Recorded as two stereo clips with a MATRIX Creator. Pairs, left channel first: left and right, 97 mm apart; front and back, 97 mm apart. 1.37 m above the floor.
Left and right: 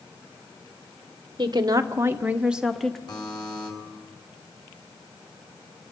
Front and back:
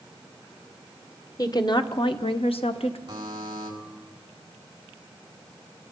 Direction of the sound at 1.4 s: 50° right.